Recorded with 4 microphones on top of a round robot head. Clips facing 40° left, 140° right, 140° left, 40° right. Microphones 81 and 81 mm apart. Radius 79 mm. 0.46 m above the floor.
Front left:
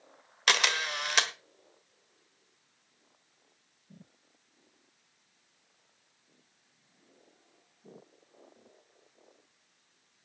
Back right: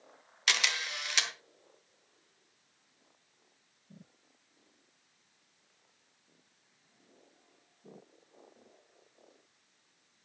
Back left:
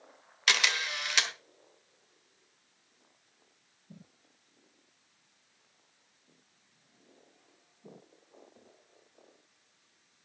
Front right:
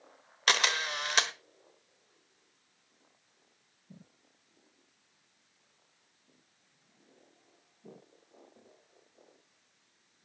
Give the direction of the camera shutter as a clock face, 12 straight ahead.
12 o'clock.